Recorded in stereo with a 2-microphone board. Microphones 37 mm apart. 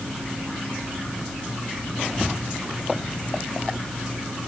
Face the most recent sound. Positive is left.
No sound to turn to.